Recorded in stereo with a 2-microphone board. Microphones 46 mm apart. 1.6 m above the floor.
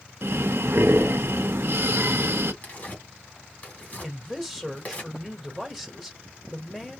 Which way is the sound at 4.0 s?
Centre (ahead or behind).